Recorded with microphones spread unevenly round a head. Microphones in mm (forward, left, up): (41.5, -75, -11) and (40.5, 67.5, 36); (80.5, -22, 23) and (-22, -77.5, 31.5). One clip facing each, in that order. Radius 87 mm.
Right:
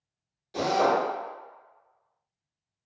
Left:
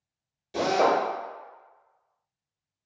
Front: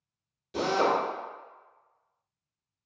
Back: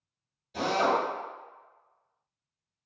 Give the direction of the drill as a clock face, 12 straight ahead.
11 o'clock.